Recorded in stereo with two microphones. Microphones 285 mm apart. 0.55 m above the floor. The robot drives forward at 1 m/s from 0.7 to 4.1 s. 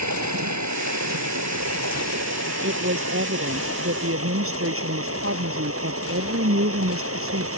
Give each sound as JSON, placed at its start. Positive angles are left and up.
{"t": 0.0, "sound": "running water", "side_deg": -75}
{"t": 2.6, "sound": "a woman speaking", "side_deg": -45}